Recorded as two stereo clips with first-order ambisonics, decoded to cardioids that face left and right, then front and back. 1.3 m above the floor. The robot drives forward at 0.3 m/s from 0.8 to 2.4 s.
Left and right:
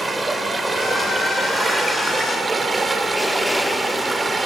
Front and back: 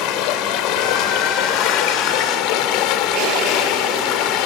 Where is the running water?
15° right, 3 m.